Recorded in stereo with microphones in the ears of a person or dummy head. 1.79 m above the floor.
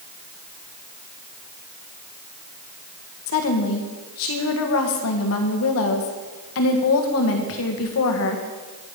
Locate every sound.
3.3 s a woman speaking: 75° left (ahead or behind), 1.7 m